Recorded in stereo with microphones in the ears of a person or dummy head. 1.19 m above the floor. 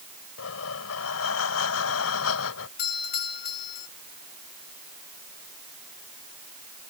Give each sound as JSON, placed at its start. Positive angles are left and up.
{"t": 0.4, "sound": "breathing", "side_deg": 75}
{"t": 2.8, "sound": "a doorbell", "side_deg": 50}